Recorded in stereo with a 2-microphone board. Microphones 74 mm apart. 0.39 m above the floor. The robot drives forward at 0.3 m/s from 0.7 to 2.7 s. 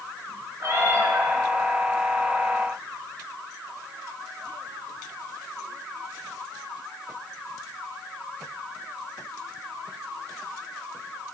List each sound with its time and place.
0.6 s a cat meowing: 45° right (ahead or behind), 1.8 m; by 1.3 s 40° right (ahead or behind), 1.9 m